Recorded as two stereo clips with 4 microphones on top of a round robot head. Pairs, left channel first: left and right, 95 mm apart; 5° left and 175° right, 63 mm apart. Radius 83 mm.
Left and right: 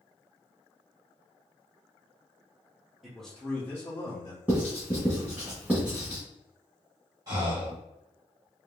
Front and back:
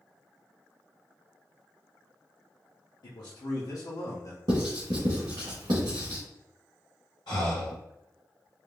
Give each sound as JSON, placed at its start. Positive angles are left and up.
{"t": 3.0, "sound": "a man speaking", "azimuth_deg": -5, "distance_m": 0.9}
{"t": 4.5, "sound": "writing", "azimuth_deg": -170, "distance_m": 1.4}
{"t": 7.3, "sound": "breathing", "azimuth_deg": -45, "distance_m": 1.7}